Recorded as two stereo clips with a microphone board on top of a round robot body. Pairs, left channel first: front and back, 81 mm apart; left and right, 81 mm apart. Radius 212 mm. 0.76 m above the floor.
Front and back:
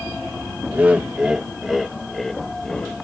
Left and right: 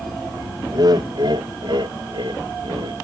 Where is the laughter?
110° right; by 2.9 s 80° right.